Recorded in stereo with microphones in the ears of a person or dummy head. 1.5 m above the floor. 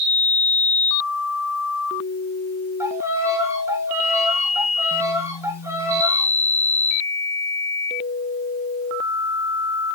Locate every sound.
2.8 s a violin: 15° right (ahead or behind), 3 m